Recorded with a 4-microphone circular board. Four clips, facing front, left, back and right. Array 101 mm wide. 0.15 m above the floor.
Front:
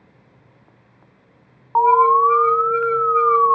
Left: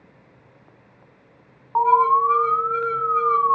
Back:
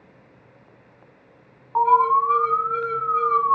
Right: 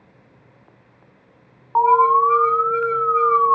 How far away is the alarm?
About 1.6 m.